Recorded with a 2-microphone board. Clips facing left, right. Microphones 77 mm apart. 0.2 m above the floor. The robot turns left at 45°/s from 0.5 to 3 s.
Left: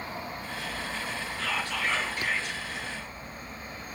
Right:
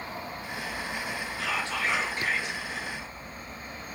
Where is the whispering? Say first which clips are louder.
Right 1 dB; 35° right, 1.5 m; by 2.6 s 90° right, 1.5 m.